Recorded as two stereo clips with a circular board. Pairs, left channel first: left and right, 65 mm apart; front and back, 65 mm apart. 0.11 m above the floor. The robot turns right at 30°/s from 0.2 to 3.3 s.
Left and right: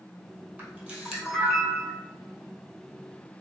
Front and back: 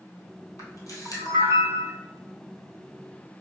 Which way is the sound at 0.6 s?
25° right.